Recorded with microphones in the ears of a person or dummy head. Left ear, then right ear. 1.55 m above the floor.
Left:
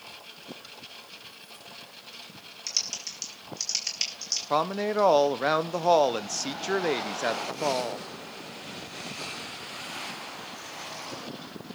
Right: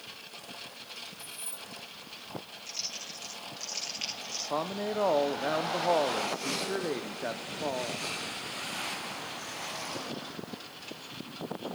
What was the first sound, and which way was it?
Keys jangling, 80° right.